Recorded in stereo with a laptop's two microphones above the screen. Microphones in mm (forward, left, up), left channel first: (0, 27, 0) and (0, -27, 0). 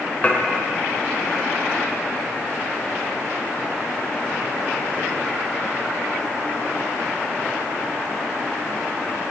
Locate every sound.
0.2 s dishes clattering: 30° left (ahead or behind), 2.5 m